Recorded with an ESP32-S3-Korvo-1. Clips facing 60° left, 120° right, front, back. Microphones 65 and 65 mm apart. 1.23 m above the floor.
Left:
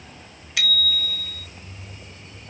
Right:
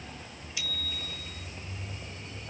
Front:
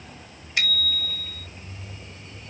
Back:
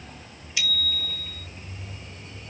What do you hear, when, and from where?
0.6 s a bicycle bell: 40° left